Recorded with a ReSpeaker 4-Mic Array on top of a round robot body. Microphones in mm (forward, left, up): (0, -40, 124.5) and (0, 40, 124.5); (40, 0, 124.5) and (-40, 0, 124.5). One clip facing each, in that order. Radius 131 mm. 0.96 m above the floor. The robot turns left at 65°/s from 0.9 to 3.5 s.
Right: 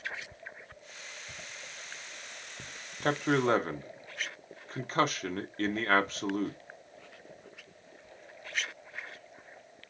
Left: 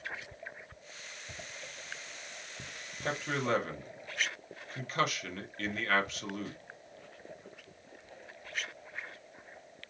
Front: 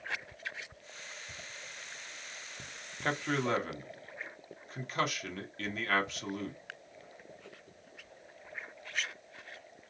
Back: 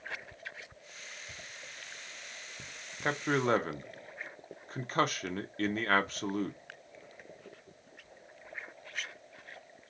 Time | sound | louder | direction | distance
3.0 | a man speaking | right 6 dB, back 2 dB | 105° right | 0.7 m